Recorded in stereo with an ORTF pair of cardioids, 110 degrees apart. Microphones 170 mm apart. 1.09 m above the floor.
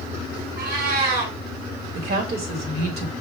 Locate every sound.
0.6 s a cat meowing: 70° right, 2.5 m
1.9 s a woman speaking: 65° right, 1.7 m